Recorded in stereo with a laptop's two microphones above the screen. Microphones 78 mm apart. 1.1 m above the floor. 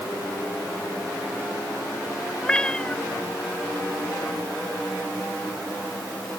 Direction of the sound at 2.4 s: 15° left (ahead or behind).